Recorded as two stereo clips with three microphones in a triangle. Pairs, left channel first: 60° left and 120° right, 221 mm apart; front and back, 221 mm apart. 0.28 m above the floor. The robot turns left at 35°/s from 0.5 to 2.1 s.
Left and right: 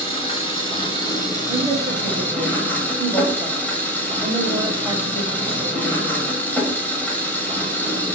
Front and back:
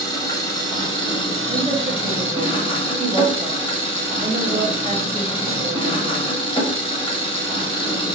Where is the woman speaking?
150° right, 1.0 m; by 6.3 s 175° right, 1.0 m.